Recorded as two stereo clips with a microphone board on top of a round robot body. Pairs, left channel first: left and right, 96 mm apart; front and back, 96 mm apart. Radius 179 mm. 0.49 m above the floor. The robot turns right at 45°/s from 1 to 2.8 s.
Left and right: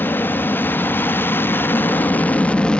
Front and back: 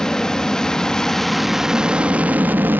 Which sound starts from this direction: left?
An aircraft, at 0.0 s.